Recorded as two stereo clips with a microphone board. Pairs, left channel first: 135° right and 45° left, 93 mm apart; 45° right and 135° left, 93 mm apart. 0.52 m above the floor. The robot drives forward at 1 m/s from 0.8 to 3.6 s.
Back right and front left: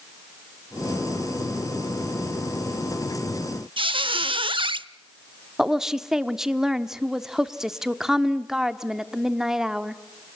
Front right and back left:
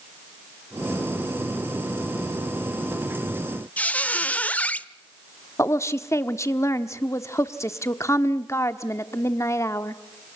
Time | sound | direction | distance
3.8 | a squeak | 30° left | 0.6 m
5.6 | a woman speaking | 35° right | 1.0 m